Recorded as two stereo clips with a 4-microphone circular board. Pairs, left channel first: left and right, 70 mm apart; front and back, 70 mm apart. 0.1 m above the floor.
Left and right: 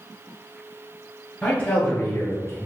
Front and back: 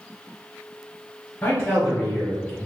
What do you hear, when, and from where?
1.4 s a man speaking: 40° left, 1.8 m; by 2.6 s 120° left, 2.5 m